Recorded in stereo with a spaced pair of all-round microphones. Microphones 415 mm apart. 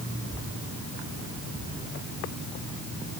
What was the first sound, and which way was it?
Only background noise.